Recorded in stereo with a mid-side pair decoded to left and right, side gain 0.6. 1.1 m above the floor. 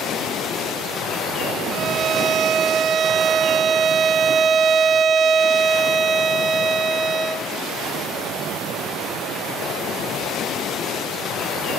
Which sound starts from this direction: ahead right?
A violin, at 1.7 s.